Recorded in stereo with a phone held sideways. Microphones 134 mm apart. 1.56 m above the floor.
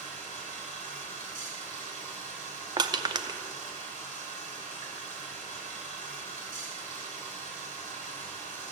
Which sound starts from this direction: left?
Running water, at 0.0 s.